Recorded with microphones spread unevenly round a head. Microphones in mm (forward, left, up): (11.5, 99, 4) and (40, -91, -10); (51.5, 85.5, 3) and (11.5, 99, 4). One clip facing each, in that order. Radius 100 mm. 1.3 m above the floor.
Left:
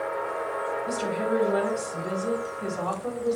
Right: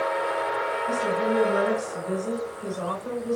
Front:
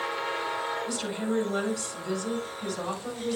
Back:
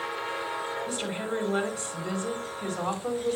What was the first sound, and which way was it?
A woman speaking, 105° left.